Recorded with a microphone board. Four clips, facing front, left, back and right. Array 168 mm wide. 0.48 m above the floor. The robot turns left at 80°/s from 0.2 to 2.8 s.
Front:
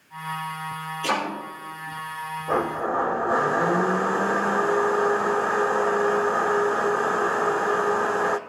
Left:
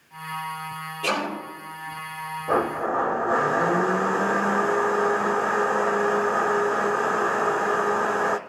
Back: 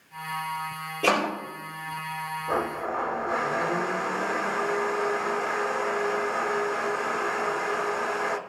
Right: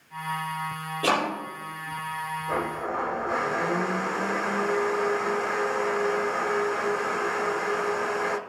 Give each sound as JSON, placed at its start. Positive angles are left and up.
{"t": 1.0, "sound": "chopping", "azimuth_deg": -155, "distance_m": 9.0}
{"t": 2.5, "sound": "a blender", "azimuth_deg": 70, "distance_m": 0.7}